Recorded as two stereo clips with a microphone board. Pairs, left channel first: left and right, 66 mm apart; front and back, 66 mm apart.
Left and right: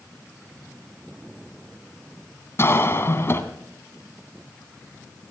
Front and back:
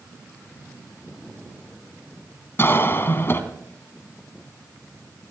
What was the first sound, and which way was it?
A cough, 50° left.